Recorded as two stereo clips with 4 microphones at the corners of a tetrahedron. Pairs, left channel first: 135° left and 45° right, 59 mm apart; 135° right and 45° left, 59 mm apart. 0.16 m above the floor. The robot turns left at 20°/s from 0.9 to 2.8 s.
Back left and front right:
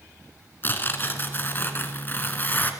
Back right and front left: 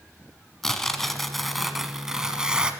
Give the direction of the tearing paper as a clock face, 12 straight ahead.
7 o'clock.